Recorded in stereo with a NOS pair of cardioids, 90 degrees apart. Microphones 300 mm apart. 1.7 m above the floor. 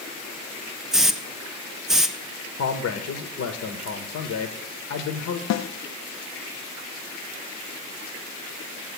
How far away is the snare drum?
About 0.6 m.